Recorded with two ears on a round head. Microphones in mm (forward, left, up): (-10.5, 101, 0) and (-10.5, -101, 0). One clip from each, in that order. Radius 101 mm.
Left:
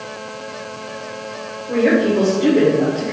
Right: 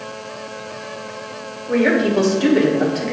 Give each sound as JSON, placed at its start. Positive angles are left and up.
{"t": 1.7, "sound": "a woman speaking", "side_deg": -80, "distance_m": 3.0}